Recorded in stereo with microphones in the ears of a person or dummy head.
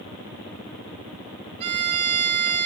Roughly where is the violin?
Right.